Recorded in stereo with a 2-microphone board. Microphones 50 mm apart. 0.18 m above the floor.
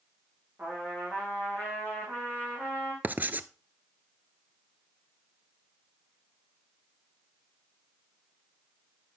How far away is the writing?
About 0.5 m.